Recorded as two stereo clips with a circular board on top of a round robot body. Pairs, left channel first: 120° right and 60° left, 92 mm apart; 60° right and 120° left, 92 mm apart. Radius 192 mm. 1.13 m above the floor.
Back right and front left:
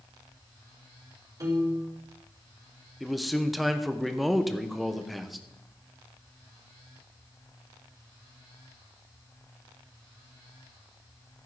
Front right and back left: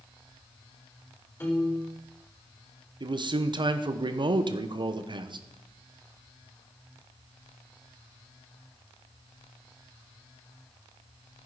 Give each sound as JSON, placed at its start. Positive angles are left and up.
{"t": 1.4, "sound": "a piano", "azimuth_deg": 5, "distance_m": 5.0}
{"t": 3.0, "sound": "a man speaking", "azimuth_deg": 150, "distance_m": 1.3}